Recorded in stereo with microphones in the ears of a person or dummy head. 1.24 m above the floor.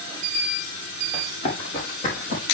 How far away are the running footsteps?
About 3 m.